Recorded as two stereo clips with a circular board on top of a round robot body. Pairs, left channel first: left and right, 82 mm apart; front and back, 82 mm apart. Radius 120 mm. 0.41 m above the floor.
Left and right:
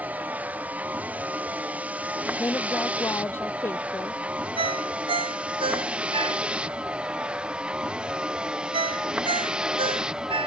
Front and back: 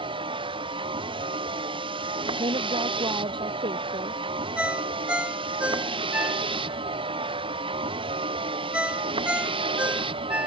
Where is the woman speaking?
155° left.